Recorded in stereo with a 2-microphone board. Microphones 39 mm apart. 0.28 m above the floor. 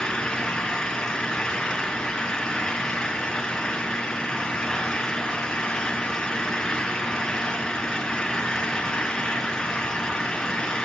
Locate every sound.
0.0 s an engine running: 15° left (ahead or behind), 3 m